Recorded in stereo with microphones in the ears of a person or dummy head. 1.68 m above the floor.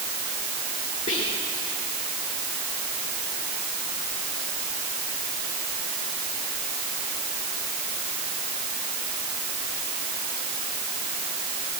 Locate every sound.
1.1 s whispering: 40° left (ahead or behind), 1.6 m